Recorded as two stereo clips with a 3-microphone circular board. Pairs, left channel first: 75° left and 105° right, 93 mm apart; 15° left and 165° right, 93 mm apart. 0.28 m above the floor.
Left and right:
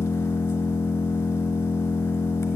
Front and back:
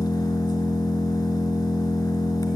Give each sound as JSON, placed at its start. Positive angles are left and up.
{"t": 0.0, "sound": "an engine running", "azimuth_deg": 25, "distance_m": 1.0}